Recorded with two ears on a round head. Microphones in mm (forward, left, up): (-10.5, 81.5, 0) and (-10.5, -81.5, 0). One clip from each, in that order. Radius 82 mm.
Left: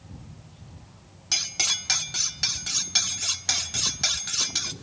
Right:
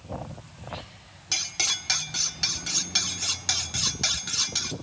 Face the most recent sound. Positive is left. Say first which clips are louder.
# left 1 dB
turn(degrees=10)  # may be behind; listen again after turning